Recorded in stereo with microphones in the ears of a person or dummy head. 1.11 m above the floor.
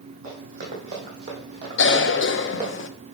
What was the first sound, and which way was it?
Running footsteps, 50° right (ahead or behind).